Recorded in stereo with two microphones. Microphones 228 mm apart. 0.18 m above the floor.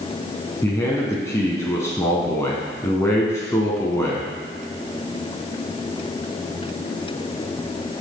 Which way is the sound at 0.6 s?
10° left (ahead or behind).